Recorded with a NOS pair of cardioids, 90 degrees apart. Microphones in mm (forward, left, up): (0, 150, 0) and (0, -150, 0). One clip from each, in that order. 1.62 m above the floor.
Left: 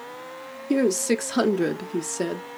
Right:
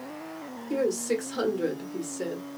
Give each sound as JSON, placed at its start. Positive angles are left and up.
{"t": 0.7, "sound": "a woman speaking", "azimuth_deg": 45, "distance_m": 0.7}